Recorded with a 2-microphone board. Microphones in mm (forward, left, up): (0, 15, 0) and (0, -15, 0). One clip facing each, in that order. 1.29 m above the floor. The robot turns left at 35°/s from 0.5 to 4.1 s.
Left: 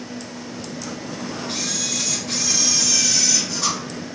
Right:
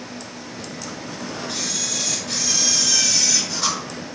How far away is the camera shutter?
About 3.5 m.